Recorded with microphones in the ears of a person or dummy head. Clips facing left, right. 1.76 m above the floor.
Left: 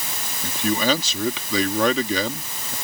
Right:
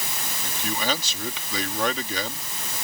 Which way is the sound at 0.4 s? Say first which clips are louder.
Left 7 dB; 65° left (ahead or behind).